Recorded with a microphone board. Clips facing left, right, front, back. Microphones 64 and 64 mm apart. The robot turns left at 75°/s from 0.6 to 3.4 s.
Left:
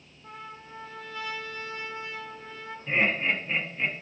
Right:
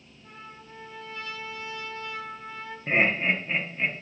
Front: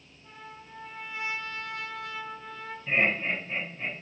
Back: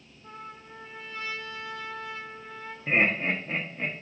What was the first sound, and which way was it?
A trumpet, 125° left.